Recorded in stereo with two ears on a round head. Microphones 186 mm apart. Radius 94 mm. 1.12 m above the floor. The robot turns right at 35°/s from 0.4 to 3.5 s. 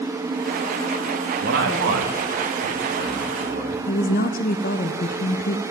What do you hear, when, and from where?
1.4 s a man speaking: 60° right (ahead or behind), 2.5 m; by 3.8 s 40° right (ahead or behind), 2.5 m
3.9 s a woman speaking: 40° left (ahead or behind), 1.0 m